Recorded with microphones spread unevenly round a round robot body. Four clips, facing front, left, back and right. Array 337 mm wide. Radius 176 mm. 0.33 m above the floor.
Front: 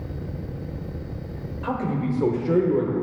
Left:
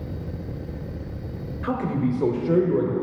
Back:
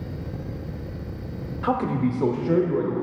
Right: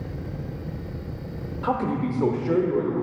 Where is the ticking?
I don't hear ticking.